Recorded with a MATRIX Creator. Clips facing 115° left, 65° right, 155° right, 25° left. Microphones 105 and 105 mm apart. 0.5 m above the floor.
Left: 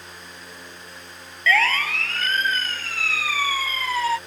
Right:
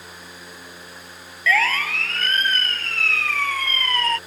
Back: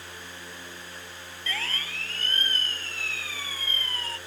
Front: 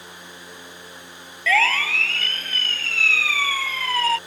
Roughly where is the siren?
Ahead.